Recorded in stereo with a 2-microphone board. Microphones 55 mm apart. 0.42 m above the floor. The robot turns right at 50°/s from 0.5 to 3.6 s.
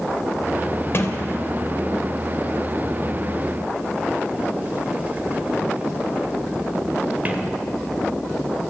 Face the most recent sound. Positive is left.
turn(degrees=-30)  # may be behind; listen again after turning